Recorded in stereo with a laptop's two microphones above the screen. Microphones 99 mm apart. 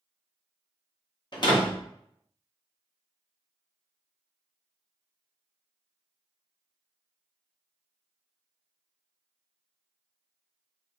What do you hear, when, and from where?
1.3 s a door slam: 50° left (ahead or behind), 0.8 m